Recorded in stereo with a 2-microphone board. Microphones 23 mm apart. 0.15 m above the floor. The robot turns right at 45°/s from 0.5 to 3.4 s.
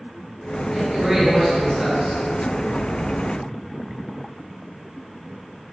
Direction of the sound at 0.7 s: 10° right (ahead or behind).